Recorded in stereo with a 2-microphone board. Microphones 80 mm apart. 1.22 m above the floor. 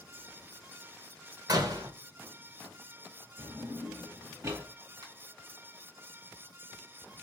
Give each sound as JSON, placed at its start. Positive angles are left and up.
{"t": 1.5, "sound": "a door slam", "side_deg": -60, "distance_m": 0.7}
{"t": 3.4, "sound": "a drawer", "side_deg": -35, "distance_m": 1.8}
{"t": 5.0, "sound": "a finger snap", "side_deg": -65, "distance_m": 1.3}